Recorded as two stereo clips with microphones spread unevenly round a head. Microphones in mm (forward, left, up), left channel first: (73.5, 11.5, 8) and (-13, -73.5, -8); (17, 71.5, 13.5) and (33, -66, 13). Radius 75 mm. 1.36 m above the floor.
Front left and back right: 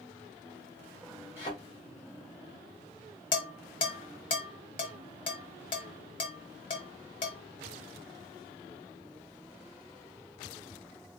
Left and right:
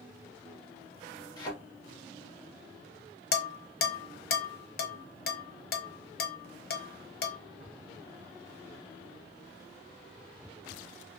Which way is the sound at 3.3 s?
95° left.